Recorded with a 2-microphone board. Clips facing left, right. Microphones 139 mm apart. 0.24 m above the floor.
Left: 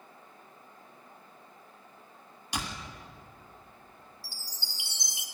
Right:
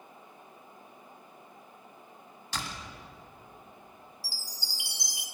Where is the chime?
25° left (ahead or behind), 1.0 m.